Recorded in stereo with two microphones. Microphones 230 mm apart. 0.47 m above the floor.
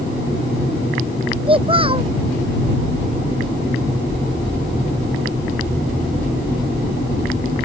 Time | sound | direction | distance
1.5 | a child speaking | 25° right (ahead or behind) | ?